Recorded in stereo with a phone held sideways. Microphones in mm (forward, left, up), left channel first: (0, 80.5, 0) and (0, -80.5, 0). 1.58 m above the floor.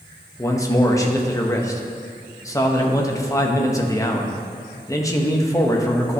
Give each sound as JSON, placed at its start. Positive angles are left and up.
{"t": 0.4, "sound": "a man speaking", "side_deg": 20, "distance_m": 0.9}